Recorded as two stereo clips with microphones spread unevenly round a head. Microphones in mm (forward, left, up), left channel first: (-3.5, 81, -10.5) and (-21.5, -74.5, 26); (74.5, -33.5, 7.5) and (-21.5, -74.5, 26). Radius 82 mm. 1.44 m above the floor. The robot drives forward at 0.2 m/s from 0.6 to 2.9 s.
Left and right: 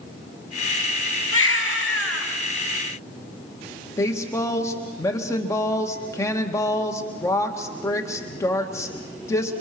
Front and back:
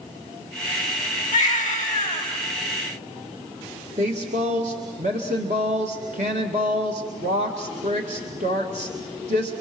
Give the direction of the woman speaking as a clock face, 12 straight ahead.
7 o'clock.